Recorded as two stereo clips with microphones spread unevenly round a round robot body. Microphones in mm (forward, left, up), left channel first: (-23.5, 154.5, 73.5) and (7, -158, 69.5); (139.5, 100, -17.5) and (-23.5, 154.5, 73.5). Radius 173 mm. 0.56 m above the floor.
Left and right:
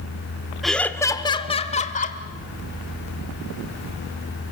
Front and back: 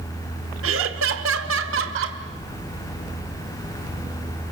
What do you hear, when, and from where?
0.6 s laughter: 175° right, 1.3 m; by 2.2 s 160° left, 2 m